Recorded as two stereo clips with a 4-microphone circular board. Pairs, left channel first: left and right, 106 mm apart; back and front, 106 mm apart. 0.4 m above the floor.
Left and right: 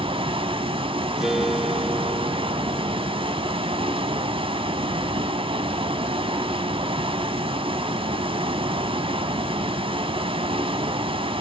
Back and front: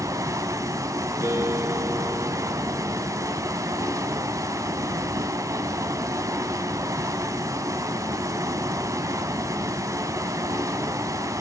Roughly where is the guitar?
Ahead.